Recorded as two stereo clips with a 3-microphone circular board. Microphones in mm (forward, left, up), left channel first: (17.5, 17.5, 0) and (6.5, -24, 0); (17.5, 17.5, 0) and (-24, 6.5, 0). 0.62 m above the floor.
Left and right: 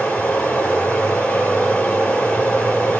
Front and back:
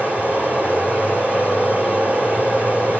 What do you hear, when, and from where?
0.0 s running water: 140° left, 10 m